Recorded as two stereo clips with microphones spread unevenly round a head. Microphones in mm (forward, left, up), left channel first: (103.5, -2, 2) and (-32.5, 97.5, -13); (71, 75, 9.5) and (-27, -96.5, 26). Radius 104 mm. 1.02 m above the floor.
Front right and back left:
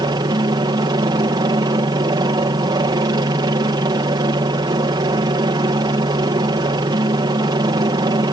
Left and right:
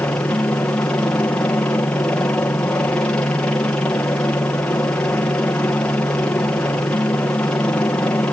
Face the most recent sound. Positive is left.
turn(degrees=130)